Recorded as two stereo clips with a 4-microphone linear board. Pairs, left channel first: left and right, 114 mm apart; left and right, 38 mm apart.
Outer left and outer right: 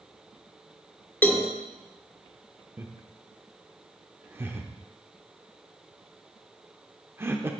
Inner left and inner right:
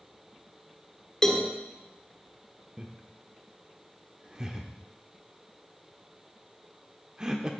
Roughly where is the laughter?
Right.